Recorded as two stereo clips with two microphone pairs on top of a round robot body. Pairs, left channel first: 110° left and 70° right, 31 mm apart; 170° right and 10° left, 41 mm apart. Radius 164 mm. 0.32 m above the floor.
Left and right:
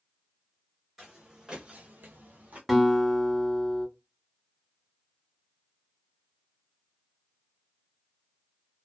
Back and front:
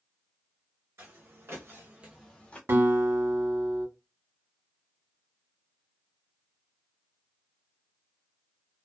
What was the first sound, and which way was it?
Footsteps, 10° left.